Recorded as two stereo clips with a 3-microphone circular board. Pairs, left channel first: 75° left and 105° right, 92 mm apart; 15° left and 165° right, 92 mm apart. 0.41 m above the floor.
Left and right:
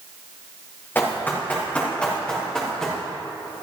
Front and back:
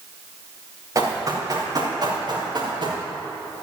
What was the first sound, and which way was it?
Running footsteps, 145° left.